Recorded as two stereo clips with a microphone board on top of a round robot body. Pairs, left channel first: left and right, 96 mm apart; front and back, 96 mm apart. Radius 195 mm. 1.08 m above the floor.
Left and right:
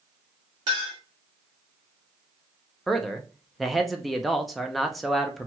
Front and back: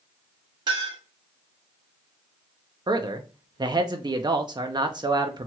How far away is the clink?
About 0.9 m.